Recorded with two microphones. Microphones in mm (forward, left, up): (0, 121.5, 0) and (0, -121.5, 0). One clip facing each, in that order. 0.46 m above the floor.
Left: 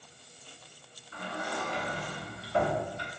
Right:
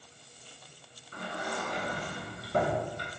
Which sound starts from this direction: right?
A sliding door, at 1.1 s.